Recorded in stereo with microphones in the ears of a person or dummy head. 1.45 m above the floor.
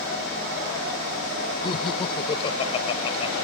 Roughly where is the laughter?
Left.